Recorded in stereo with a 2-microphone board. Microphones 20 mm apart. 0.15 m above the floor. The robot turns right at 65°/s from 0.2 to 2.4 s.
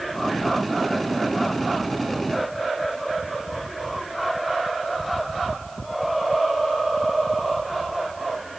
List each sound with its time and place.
Only background noise.